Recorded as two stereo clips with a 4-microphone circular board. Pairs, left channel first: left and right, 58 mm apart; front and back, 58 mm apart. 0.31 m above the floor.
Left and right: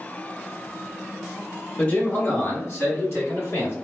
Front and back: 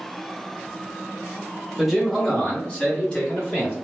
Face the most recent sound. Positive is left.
turn(degrees=65)